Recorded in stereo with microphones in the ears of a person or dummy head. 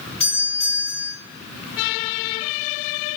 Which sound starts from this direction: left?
A doorbell, at 0.2 s.